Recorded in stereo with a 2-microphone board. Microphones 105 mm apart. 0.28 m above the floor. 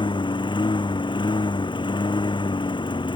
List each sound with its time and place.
0.0 s a lawn mower: 50° left (ahead or behind)